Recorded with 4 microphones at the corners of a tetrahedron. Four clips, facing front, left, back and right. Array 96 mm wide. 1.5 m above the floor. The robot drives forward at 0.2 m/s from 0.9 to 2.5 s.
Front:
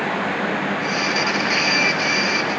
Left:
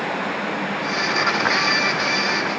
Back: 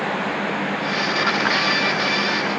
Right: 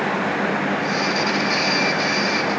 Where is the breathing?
I don't hear breathing.